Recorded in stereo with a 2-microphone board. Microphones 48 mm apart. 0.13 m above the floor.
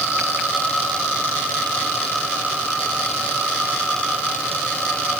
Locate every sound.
Only background noise.